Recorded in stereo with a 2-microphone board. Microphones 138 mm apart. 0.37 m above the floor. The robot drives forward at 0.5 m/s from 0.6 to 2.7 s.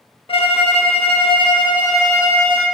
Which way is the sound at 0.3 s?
40° left (ahead or behind).